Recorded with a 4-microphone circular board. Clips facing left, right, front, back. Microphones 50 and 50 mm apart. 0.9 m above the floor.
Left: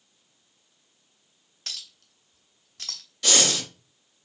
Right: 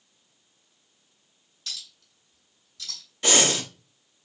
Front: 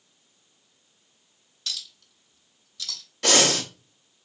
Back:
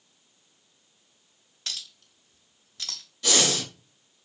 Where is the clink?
130° left, 0.8 m.